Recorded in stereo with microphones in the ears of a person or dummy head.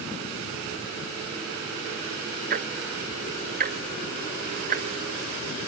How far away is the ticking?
About 0.5 m.